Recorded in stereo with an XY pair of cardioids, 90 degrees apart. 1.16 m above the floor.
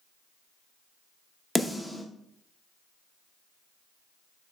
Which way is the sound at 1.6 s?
10° left.